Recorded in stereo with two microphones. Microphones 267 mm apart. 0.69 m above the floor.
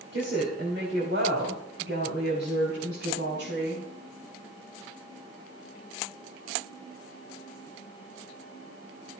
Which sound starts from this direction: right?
A woman speaking, at 0.1 s.